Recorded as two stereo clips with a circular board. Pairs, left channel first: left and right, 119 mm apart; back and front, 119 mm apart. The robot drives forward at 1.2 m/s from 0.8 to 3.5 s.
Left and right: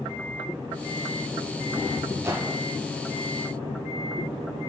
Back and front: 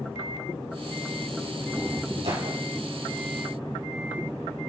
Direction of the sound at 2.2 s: 25° right.